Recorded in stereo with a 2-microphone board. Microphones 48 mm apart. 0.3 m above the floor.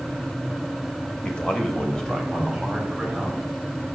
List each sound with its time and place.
1.2 s a man speaking: 20° left (ahead or behind), 0.9 m; by 3.5 s 5° left (ahead or behind), 2.5 m